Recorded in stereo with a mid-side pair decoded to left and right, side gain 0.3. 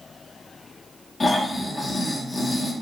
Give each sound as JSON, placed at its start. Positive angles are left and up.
{"t": 1.2, "sound": "snoring", "azimuth_deg": 45, "distance_m": 0.9}